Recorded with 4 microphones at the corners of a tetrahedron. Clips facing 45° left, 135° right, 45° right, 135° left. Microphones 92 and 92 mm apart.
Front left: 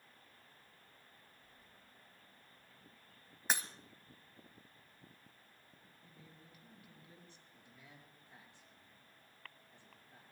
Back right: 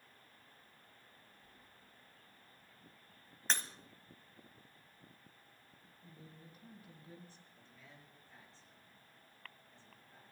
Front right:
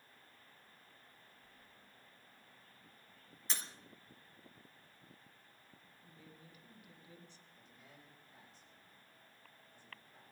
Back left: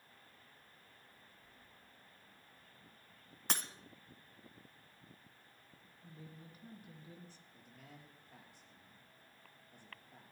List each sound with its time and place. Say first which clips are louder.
1.4 s keys jangling: back right 1 dB, even; 130° right, 5 m
3.5 s breaking glass: front left 1 dB, back left 5 dB; 125° left, 1.1 m
6.0 s a woman speaking: back right 5 dB, back left 5 dB; straight behind, 3 m
7.5 s a man speaking: even, back left 3 dB; 120° left, 6 m